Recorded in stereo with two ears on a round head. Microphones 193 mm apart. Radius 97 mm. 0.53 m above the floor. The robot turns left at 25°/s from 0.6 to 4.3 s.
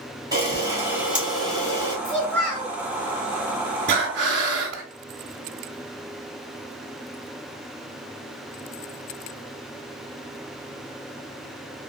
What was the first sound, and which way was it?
A camera shutter, 160° right.